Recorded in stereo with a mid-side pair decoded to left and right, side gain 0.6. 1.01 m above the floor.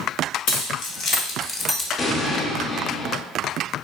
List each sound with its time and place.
0.5 s keys jangling: 70° left, 0.9 m; by 1.9 s 15° left, 0.5 m
2.0 s an explosion: 35° left, 0.5 m